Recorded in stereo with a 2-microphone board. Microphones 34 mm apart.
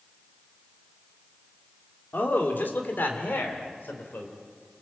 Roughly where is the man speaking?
Left.